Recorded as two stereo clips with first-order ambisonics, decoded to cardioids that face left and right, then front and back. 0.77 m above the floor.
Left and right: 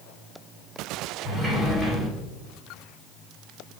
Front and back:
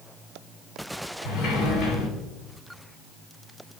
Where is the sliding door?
20° right, 1.8 m.